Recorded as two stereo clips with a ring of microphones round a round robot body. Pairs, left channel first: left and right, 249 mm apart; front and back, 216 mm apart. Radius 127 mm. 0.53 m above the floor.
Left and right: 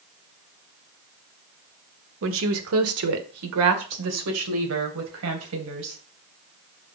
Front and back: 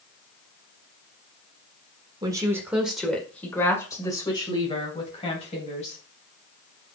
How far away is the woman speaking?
About 1.4 m.